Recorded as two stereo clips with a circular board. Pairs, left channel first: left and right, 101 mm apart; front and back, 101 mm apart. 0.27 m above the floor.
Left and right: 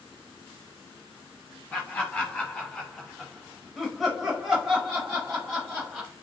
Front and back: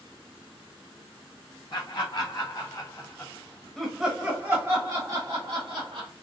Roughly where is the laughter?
Ahead.